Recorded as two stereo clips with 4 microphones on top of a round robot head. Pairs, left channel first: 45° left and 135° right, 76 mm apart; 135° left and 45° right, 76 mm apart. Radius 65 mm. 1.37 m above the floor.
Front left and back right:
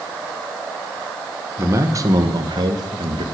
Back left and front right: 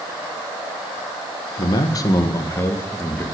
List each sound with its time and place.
1.6 s a man speaking: 165° left, 1.5 m; by 3.2 s 160° right, 2 m